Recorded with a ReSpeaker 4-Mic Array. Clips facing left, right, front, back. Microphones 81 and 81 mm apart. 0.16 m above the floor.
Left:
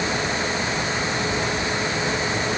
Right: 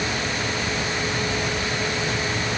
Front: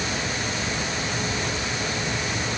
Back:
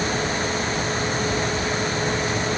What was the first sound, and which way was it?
Only background noise.